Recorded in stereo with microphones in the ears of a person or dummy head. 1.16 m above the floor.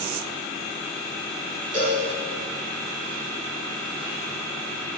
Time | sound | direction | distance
1.7 | a cowbell | 10° right (ahead or behind) | 3.5 m